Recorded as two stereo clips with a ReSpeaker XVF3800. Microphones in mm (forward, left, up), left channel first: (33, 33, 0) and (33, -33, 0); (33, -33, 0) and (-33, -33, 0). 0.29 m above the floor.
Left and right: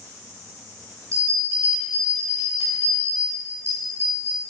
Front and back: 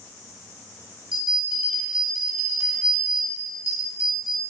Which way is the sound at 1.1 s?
110° right.